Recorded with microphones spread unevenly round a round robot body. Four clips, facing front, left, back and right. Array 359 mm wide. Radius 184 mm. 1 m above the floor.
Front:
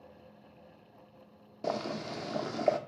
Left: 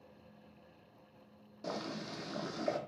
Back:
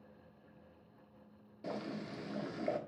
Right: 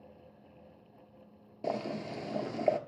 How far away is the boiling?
About 1.4 m.